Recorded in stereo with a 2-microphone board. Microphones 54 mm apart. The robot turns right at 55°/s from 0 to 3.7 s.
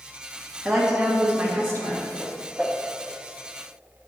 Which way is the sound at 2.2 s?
15° left (ahead or behind).